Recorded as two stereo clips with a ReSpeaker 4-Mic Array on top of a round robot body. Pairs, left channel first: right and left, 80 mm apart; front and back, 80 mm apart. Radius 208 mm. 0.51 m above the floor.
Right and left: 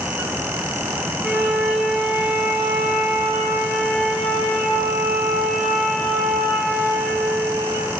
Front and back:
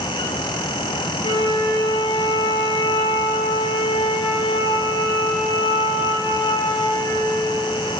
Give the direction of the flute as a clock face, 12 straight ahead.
12 o'clock.